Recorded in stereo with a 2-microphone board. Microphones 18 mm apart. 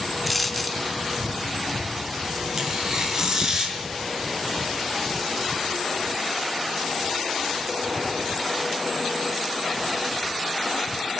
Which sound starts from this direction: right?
Tearing paper, at 2.6 s.